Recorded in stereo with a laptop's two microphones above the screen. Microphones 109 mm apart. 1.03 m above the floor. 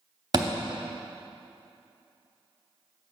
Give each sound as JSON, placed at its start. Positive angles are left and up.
{"t": 0.3, "sound": "a thud", "side_deg": -40, "distance_m": 0.7}